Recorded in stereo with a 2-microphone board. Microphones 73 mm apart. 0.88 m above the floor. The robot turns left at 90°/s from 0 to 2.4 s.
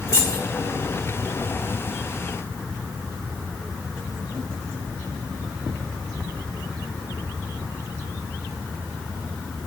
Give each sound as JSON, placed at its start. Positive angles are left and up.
{"t": 0.1, "sound": "keys jangling", "side_deg": 45, "distance_m": 2.0}